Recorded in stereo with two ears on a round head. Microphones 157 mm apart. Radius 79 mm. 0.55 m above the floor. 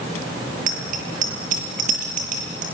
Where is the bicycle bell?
50° right (ahead or behind), 8.5 m.